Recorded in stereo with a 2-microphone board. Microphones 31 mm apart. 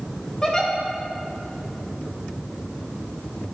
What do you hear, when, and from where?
0.4 s a giggle: 25° left (ahead or behind), 1.0 m